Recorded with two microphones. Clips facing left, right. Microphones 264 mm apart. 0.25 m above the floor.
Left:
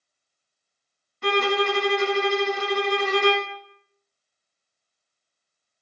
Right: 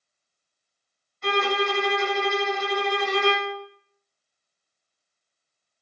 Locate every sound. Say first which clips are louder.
1.2 s a violin: left 3 dB; 70° left (ahead or behind), 0.7 m